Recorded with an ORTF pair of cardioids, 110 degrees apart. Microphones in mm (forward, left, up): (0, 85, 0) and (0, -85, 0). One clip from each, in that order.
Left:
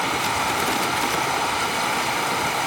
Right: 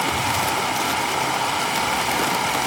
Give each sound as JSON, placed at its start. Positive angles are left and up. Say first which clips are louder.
{"t": 0.0, "sound": "running water", "louder": "right 1 dB", "azimuth_deg": -5, "distance_m": 4.5}